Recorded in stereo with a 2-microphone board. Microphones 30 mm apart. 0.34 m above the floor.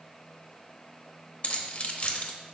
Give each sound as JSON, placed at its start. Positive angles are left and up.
{"t": 1.4, "sound": "keys jangling", "side_deg": 45, "distance_m": 0.7}